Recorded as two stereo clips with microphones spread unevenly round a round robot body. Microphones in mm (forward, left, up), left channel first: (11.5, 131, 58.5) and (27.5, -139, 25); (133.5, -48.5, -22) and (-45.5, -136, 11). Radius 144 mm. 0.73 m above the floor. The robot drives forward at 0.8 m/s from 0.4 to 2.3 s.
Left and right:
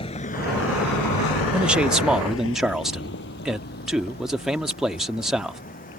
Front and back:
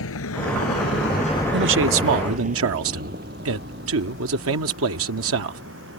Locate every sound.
0.0 s a vehicle: 25° left; by 6.0 s 155° left
1.5 s a man speaking: 165° right; by 5.6 s 170° right